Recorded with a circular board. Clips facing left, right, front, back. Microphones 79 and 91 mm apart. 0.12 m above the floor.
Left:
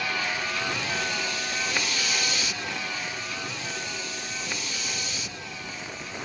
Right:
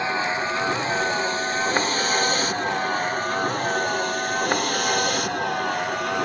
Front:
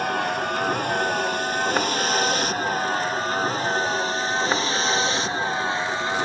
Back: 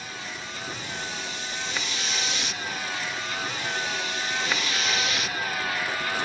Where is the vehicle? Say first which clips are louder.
Right 6 dB, front 14 dB; 30° right; by 6.3 s 65° right.